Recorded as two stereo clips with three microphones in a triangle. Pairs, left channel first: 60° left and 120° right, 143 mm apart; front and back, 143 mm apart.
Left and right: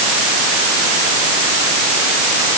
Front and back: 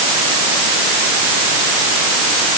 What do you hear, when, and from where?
Only background noise.